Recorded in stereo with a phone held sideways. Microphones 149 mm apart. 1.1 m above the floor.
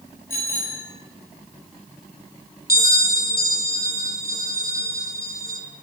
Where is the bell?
85° left, 3 m.